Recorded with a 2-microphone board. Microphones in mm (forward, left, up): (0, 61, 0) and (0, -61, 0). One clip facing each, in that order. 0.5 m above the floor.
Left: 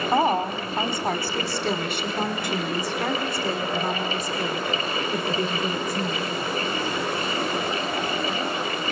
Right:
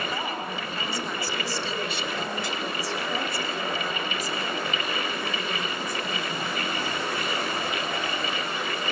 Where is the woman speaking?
55° left (ahead or behind), 2.5 m; by 6.3 s 50° left (ahead or behind), 6.5 m.